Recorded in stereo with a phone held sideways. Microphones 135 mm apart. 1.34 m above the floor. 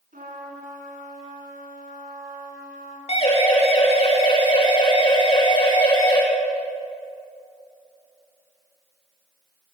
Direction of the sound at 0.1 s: 85° right.